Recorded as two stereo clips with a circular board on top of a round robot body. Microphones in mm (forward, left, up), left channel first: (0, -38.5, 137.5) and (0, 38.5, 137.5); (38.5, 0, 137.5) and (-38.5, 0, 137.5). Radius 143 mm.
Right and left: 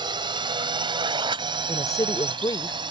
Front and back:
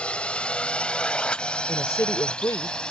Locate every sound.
0.0 s a drone: 75° left; by 2.9 s 80° left
1.7 s a woman speaking: 55° right